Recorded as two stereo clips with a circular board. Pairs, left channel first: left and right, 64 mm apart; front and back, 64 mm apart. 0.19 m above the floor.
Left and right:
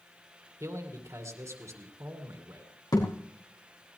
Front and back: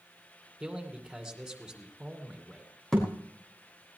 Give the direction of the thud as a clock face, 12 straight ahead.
9 o'clock.